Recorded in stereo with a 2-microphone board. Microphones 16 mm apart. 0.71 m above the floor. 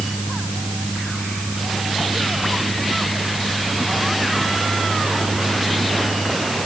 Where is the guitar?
No guitar in this recording.